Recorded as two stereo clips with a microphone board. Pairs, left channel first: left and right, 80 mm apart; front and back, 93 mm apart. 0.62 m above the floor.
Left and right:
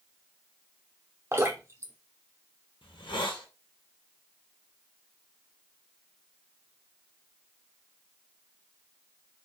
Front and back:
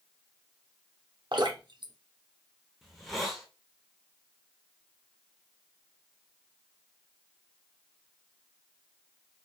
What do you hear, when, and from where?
1.3 s dripping: 145° right, 0.7 m
2.8 s a hiss: 90° left, 0.7 m